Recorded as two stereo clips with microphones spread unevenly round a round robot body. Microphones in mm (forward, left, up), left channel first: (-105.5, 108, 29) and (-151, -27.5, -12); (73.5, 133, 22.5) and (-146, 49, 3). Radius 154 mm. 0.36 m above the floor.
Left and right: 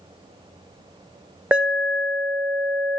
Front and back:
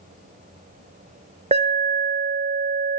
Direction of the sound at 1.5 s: 155° right.